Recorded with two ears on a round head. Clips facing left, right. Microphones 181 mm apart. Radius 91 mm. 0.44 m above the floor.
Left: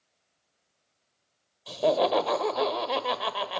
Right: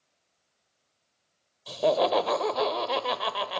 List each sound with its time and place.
1.7 s laughter: centre (ahead or behind), 1.7 m